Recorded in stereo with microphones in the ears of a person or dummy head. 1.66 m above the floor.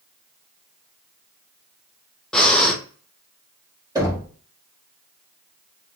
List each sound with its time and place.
2.3 s breathing: centre (ahead or behind), 0.6 m
4.0 s knocking: 20° right (ahead or behind), 1.3 m